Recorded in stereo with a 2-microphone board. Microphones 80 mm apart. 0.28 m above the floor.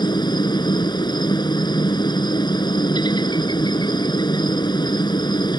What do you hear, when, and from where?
0.0 s a helicopter: 70° left (ahead or behind)